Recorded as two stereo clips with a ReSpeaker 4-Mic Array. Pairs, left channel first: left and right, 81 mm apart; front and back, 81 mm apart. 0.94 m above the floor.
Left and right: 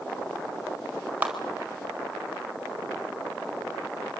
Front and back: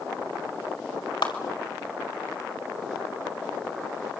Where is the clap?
20° right, 4.5 m.